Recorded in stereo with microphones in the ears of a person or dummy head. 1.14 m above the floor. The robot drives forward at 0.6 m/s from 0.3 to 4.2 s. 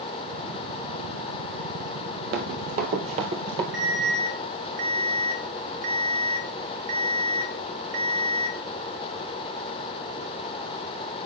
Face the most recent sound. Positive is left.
turn(degrees=-55)  # may be behind; listen again after turning